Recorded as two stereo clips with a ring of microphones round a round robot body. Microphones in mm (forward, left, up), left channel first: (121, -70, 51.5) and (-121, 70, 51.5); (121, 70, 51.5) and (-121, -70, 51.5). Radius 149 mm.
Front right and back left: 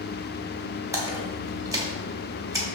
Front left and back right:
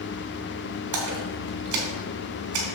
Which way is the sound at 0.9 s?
130° right.